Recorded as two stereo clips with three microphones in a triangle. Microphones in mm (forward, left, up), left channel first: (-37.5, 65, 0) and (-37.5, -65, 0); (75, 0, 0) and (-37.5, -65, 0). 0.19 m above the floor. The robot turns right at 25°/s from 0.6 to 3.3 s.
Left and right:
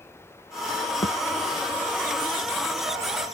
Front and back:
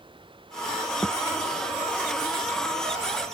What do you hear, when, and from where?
0.0 s running water: 160° left; by 3.3 s 130° right
1.0 s a thud: 110° left; by 1.2 s 115° left